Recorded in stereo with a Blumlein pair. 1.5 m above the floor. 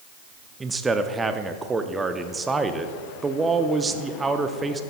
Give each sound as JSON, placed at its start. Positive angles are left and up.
{"t": 0.6, "sound": "a man speaking", "azimuth_deg": -10, "distance_m": 0.6}